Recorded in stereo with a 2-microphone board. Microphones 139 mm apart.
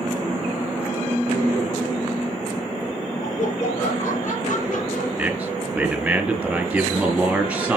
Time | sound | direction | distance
3.2 | laughter | 75° left (ahead or behind) | 7 m
5.2 | a man speaking | 10° right (ahead or behind) | 4 m